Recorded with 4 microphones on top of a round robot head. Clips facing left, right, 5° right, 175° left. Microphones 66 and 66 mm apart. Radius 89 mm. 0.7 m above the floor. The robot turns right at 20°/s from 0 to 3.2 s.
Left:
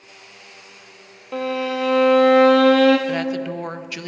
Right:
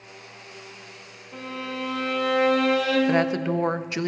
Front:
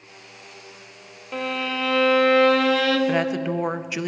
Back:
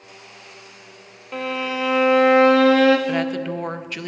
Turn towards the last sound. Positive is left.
turn(degrees=-70)